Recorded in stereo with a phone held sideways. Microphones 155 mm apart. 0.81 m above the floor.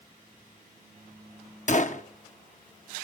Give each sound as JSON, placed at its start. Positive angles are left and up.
{"t": 1.7, "sound": "a gunshot", "side_deg": 55, "distance_m": 0.8}